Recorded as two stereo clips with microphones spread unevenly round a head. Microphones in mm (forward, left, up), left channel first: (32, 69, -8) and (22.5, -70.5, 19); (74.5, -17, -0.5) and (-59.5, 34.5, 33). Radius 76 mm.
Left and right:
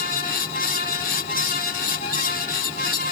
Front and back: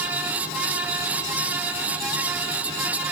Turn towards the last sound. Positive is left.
No sound to turn to.